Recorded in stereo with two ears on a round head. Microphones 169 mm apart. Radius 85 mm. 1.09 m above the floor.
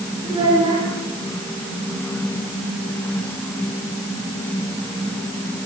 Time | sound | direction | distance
0.2 | a child speaking | 20° right (ahead or behind) | 8.5 m